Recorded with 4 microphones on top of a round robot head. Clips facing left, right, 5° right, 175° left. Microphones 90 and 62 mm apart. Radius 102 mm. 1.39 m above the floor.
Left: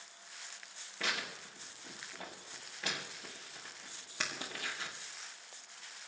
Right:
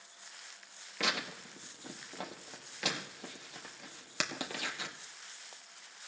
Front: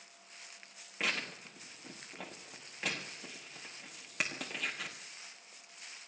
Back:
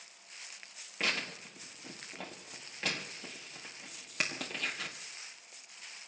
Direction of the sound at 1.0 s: 90° right.